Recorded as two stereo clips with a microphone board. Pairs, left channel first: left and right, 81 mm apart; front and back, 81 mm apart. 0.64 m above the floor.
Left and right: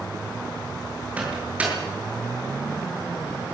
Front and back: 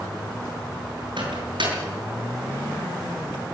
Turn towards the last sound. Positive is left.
turn(degrees=-165)